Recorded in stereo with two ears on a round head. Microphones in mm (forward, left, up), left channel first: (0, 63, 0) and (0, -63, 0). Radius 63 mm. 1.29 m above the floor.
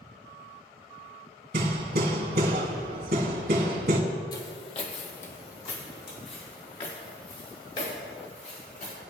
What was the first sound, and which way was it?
Hammering, 70° right (ahead or behind).